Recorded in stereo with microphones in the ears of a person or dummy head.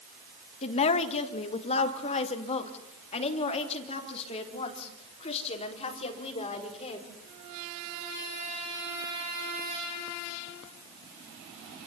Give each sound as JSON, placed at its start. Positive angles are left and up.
{"t": 0.6, "sound": "a woman speaking", "side_deg": 35, "distance_m": 1.8}